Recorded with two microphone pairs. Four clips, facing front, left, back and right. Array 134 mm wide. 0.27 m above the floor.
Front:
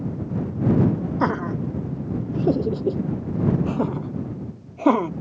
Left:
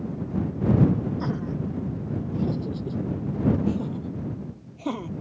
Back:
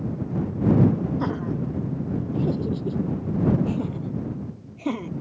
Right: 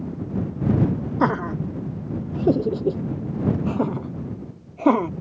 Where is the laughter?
65° right; by 5.1 s 45° right.